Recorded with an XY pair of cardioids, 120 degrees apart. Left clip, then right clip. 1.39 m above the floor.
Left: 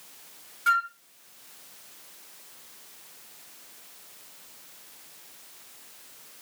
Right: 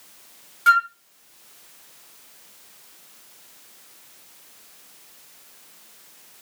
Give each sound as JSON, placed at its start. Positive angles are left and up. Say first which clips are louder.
{"t": 0.7, "sound": "a flute", "louder": "right 7 dB", "azimuth_deg": -45, "distance_m": 1.5}